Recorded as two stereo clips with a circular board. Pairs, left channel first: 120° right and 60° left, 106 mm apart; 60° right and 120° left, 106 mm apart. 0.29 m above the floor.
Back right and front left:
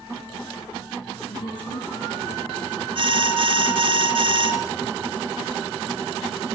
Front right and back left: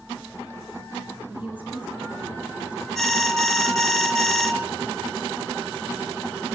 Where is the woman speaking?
165° right, 8 m; by 2.9 s 160° right, 8.5 m.